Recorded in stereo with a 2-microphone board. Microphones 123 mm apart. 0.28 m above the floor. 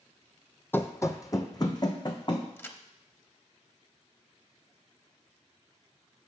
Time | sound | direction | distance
0.7 | running footsteps | 20° left (ahead or behind) | 0.6 m
2.6 | a crack | 20° left (ahead or behind) | 0.7 m